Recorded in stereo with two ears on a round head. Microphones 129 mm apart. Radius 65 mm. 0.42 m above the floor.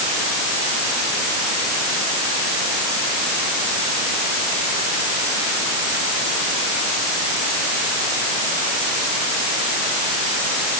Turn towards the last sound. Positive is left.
No sound to turn to.